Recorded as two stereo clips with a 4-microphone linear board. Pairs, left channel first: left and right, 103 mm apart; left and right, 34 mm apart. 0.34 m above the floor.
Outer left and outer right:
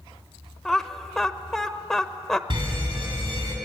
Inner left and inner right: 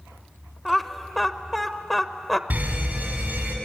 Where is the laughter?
5° left (ahead or behind), 0.9 m.